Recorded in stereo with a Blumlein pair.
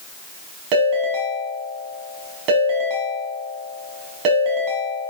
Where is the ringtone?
40° right, 7 m.